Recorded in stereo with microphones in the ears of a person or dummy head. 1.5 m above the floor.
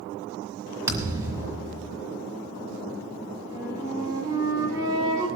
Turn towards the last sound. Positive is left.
turn(degrees=-20)  # may be behind; listen again after turning